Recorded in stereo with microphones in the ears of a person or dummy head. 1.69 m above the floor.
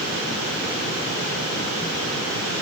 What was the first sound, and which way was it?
Only background noise.